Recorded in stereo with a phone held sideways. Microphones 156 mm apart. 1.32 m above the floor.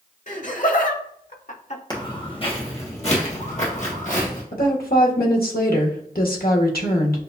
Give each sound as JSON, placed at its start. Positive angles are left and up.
{"t": 0.3, "sound": "laughter", "side_deg": 55, "distance_m": 1.4}
{"t": 1.9, "sound": "footsteps", "side_deg": 30, "distance_m": 1.4}
{"t": 4.5, "sound": "a woman speaking", "side_deg": 80, "distance_m": 1.3}